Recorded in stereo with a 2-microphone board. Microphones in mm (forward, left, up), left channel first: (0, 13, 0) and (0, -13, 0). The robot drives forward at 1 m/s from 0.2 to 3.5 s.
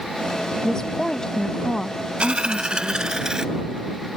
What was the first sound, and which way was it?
A woman speaking, 30° left (ahead or behind).